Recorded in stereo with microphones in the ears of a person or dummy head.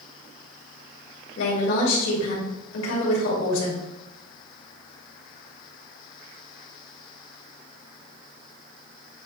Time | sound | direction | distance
1.4 | a woman speaking | 85° left | 3 m